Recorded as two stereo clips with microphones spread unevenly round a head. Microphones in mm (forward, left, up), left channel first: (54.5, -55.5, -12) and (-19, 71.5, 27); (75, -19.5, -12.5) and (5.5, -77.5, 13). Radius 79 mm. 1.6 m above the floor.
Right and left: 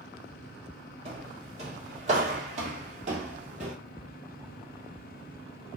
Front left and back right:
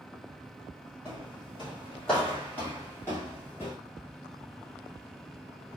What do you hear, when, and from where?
1.1 s footsteps: 150° left, 3 m; by 3.7 s 115° left, 3 m